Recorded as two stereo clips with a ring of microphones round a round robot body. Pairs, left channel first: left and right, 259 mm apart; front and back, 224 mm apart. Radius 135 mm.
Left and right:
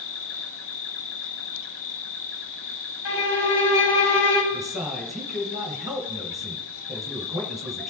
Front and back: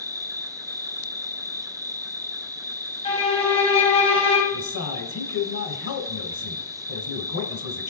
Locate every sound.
0.0 s an insect: 105° left, 0.9 m
3.0 s a violin: 65° left, 2.5 m
4.5 s a man speaking: straight ahead, 1.9 m